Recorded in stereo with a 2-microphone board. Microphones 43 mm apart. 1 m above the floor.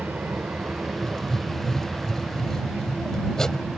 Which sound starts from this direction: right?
An aircraft, at 0.0 s.